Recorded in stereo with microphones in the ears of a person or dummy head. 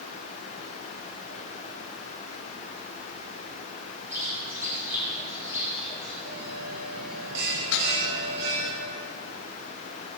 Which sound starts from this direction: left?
Dishes clattering, at 7.7 s.